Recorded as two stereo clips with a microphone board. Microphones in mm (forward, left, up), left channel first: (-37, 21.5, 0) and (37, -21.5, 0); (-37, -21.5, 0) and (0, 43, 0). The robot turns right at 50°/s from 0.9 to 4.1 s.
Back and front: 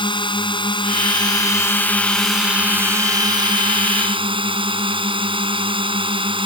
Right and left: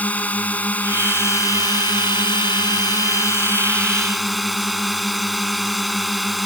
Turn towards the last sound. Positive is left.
turn(degrees=-30)